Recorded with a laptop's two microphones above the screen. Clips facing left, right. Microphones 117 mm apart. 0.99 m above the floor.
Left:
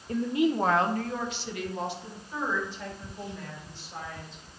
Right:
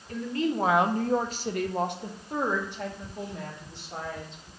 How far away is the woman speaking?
About 0.7 m.